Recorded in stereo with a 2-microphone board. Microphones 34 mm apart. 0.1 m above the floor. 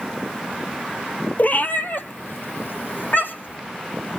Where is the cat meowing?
50° left (ahead or behind), 1.1 m; by 3.6 s 75° left (ahead or behind), 2.5 m.